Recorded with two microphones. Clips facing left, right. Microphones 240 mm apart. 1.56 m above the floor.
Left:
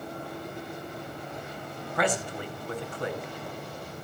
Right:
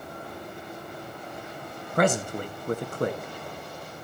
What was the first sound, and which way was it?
A man speaking, 45° right (ahead or behind).